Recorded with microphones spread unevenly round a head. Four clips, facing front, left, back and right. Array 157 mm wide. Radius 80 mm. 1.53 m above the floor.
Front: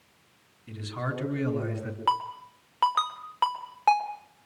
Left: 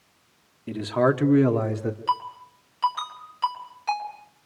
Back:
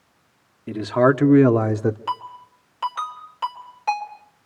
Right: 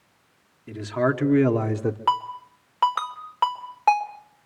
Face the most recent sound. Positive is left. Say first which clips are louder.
# right 3 dB, front 2 dB
turn(degrees=-55)